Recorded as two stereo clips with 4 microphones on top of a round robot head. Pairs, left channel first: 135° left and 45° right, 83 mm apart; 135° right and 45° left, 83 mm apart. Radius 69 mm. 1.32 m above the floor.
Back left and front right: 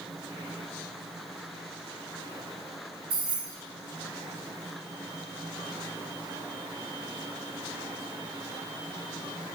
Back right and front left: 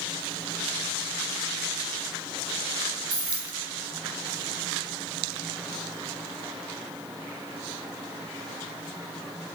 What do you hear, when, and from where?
3.1 s keys jangling: 10° right, 1.1 m